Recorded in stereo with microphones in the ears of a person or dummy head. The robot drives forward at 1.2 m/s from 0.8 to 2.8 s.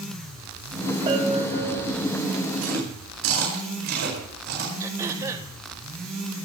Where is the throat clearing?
15° right (ahead or behind), 2 m.